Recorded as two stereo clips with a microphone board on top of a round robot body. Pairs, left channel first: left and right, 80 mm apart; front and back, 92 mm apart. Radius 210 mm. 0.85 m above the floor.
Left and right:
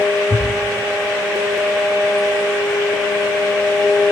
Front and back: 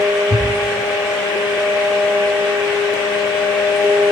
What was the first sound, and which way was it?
A thud, 20° right.